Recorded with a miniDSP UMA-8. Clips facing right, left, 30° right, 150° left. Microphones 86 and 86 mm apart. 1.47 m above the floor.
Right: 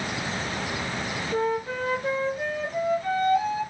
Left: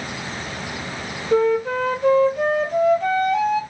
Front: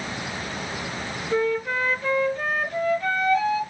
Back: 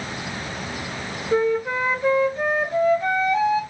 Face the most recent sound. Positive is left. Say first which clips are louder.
# left 9 dB, back 3 dB
turn(degrees=80)